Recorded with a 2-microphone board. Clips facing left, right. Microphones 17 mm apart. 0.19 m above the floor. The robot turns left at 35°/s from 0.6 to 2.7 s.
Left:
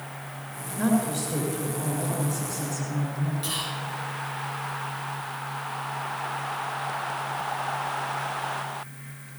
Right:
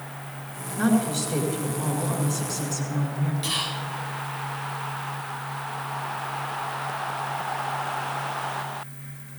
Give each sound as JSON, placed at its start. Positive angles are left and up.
{"t": 0.8, "sound": "a woman speaking", "azimuth_deg": -50, "distance_m": 2.5}
{"t": 3.4, "sound": "whispering", "side_deg": -15, "distance_m": 1.2}